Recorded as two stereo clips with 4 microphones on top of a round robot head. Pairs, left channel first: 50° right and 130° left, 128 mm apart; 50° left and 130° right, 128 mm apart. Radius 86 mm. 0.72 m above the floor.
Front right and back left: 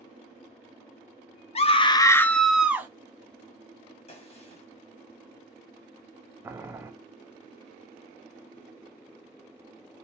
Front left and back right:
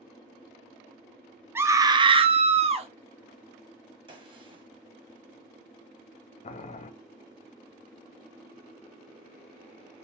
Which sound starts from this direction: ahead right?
A scream, at 1.6 s.